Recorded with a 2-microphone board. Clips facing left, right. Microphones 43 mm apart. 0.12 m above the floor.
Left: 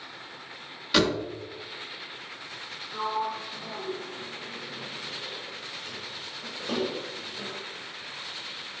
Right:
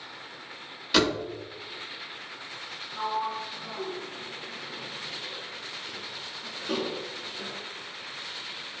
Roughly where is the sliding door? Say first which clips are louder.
Even; left.